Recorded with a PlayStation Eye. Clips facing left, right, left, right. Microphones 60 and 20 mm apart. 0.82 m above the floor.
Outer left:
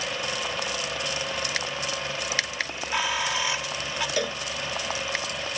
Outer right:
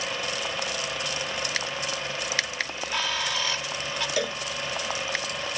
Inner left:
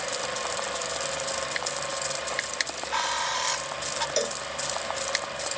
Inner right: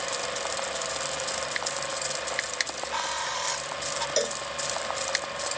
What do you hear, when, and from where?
2.7 s a bird: 15° left (ahead or behind)
4.2 s a cowbell: centre (ahead or behind)